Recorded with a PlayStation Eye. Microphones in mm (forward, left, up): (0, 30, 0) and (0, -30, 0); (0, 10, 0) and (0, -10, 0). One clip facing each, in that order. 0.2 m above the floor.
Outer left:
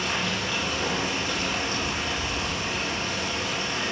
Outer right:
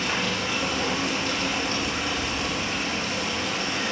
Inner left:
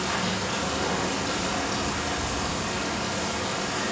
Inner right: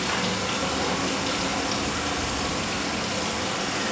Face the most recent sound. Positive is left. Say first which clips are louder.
# outer right 1 dB, inner right 1 dB
turn(degrees=-65)  # may be behind; listen again after turning